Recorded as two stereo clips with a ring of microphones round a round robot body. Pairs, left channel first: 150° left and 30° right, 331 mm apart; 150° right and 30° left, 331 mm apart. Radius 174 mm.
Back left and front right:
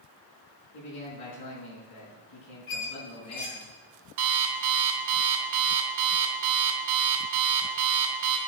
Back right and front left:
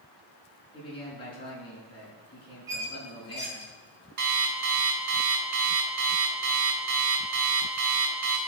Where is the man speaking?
135° left, 5.5 m.